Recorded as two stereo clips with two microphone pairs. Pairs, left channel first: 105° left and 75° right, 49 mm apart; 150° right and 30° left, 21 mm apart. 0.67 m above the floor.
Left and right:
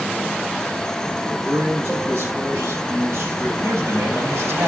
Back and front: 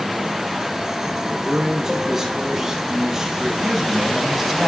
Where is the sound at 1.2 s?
45° right, 6.5 m.